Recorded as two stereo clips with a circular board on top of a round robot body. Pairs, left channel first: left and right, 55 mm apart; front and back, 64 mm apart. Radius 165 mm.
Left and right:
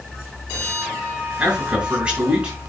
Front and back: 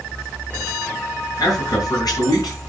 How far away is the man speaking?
About 6.5 m.